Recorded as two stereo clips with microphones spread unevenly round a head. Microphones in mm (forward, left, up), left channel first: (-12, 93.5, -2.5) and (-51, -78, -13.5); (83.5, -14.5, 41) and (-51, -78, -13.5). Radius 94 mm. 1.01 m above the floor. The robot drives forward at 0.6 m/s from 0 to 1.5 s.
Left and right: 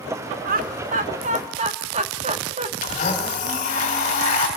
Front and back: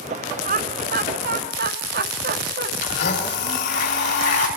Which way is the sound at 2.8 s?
20° left.